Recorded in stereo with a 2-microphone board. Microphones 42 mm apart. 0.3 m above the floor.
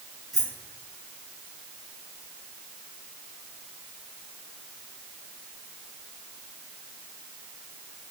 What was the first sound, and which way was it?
Keys jangling, centre (ahead or behind).